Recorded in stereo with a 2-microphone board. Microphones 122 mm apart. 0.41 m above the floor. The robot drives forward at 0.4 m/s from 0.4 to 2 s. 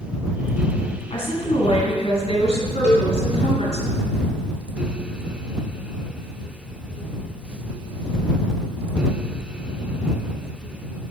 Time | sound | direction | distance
1.1 | a woman speaking | 60° left (ahead or behind) | 3 m
2.8 | a cowbell | 75° left (ahead or behind) | 3 m